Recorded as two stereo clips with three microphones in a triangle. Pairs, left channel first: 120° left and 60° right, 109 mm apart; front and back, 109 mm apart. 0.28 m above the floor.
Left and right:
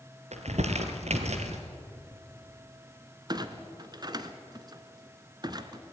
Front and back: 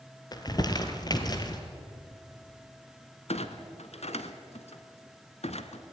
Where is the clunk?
10° right, 1.2 m.